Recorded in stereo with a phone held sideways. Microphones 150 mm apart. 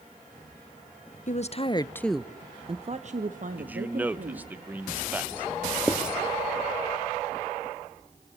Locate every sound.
1.3 s a woman speaking: 55° left (ahead or behind), 1.0 m; by 4.5 s 70° right (ahead or behind), 2.5 m
3.6 s a man speaking: 10° right (ahead or behind), 1.0 m
5.9 s writing: 5° right (ahead or behind), 1.1 m